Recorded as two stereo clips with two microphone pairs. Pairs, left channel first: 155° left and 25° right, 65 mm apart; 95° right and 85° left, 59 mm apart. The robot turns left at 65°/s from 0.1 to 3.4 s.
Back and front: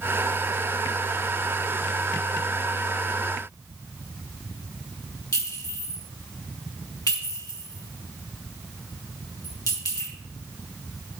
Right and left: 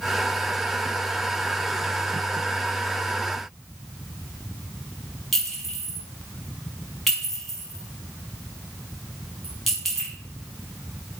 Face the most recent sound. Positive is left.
turn(degrees=175)